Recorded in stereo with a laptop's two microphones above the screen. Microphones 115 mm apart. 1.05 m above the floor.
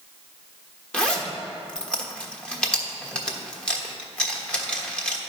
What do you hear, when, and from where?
0.9 s a zipper: 10° left (ahead or behind), 1.2 m